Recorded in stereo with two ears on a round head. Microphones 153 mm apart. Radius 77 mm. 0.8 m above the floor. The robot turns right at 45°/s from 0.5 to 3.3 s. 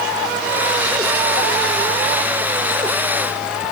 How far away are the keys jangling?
No keys jangling in this recording.